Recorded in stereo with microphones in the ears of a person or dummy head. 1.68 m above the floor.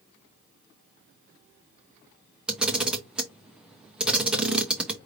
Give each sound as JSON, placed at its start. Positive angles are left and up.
{"t": 2.5, "sound": "a camera shutter", "side_deg": -5, "distance_m": 0.6}